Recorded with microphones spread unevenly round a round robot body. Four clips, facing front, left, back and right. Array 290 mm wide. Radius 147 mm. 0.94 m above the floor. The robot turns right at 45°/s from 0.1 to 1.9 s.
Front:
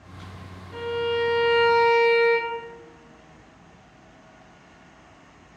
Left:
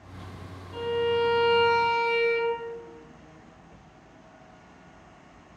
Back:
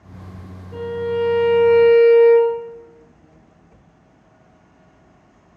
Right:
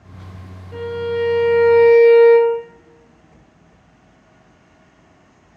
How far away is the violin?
About 0.7 m.